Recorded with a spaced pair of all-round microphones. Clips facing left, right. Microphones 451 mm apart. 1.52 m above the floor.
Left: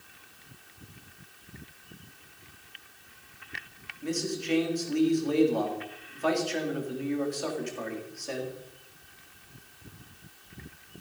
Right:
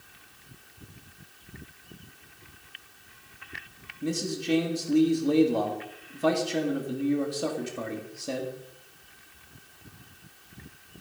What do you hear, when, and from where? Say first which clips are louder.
4.0 s a man speaking: right 2 dB; 55° right (ahead or behind), 3 m